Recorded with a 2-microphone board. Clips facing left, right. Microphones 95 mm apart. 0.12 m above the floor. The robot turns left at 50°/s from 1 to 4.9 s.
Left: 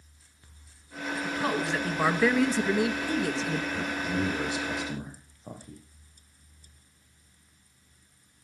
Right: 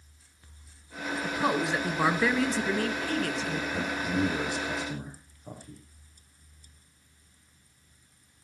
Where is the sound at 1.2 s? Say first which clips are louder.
Right 2 dB; 20° right (ahead or behind), 1.2 m; by 3.6 s 25° left (ahead or behind), 1.2 m.